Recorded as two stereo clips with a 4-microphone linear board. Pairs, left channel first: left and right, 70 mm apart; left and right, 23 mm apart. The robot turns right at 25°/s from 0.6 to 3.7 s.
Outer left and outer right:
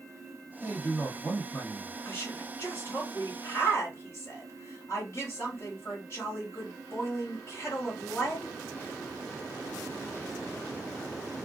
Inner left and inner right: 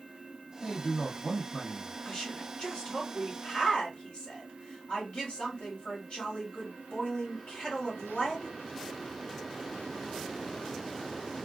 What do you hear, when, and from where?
0.6 s a man speaking: 25° left, 1.8 m; by 1.9 s 55° left, 1.8 m
2.0 s a woman speaking: 45° left, 1.5 m; by 8.6 s 90° left, 1.5 m